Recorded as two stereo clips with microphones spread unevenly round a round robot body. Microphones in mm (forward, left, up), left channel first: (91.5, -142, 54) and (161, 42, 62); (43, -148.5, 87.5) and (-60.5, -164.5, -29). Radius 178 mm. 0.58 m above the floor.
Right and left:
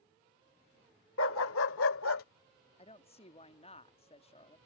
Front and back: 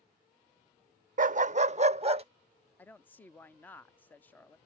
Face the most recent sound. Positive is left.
turn(degrees=-150)